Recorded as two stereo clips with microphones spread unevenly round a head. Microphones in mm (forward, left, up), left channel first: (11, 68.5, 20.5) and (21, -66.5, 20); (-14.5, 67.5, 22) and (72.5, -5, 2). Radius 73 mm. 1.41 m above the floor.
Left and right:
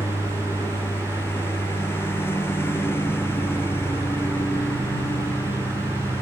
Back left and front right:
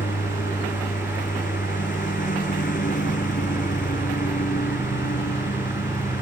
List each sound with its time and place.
0.0 s a lawn mower: 170° left